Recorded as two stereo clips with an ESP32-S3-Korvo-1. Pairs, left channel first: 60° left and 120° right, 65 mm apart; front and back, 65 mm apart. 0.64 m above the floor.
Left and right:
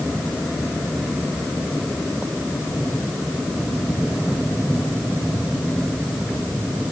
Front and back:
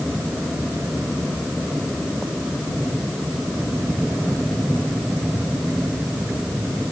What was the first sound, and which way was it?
Only background noise.